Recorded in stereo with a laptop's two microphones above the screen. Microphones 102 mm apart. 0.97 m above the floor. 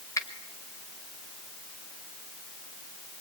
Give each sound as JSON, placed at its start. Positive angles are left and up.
{"t": 0.2, "sound": "a finger snap", "side_deg": 30, "distance_m": 2.5}